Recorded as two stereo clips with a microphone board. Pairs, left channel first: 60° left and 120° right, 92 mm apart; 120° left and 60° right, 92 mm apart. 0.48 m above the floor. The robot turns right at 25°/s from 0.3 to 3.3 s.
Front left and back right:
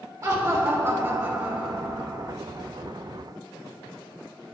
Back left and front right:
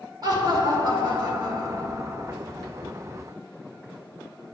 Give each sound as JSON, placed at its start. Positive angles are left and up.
{"t": 0.2, "sound": "laughter", "azimuth_deg": -80, "distance_m": 1.3}